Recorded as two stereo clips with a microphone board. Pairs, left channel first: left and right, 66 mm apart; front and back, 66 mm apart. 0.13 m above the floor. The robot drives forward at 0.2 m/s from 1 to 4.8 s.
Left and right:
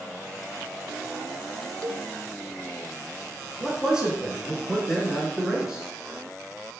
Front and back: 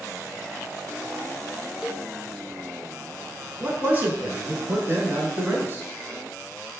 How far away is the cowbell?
About 0.5 m.